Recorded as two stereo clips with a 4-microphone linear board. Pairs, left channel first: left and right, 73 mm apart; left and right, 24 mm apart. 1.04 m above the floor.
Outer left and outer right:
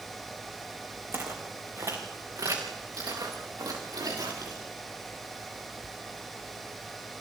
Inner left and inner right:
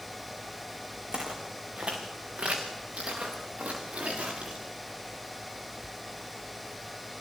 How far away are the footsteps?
About 5.5 m.